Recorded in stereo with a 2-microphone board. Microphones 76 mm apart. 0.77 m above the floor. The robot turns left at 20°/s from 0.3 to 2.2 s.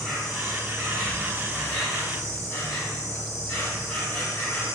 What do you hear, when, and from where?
0.0 s an insect: straight behind, 1.3 m; by 4.8 s 145° left, 1.3 m